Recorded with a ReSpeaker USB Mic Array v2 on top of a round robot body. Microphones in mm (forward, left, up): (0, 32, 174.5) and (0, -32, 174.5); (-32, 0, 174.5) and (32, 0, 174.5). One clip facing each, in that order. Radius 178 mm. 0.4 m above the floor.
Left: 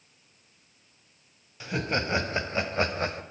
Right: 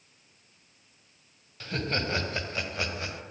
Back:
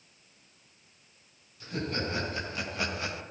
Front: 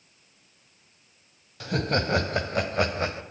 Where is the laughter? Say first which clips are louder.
Left 2 dB, front 7 dB; 10° left, 4.5 m; by 3.2 s 50° left, 3.5 m.